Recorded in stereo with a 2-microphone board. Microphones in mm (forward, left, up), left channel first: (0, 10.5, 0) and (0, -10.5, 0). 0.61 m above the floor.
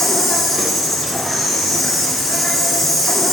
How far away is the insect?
About 5 m.